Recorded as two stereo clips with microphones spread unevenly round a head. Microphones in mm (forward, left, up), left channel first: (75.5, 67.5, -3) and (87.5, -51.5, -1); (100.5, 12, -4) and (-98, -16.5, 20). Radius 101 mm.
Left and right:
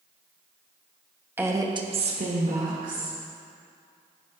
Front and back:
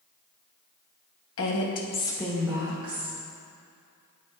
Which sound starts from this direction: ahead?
A woman speaking, at 1.4 s.